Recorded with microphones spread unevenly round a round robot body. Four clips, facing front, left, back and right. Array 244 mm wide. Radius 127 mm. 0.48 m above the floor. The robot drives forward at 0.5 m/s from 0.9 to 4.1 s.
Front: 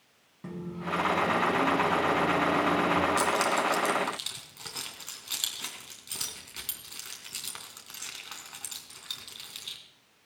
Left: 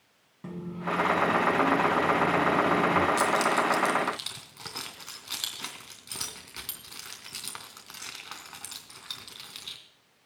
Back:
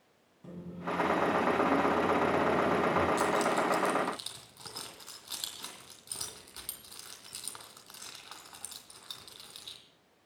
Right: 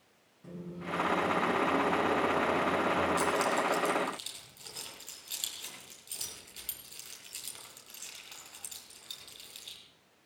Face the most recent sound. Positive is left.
turn(degrees=75)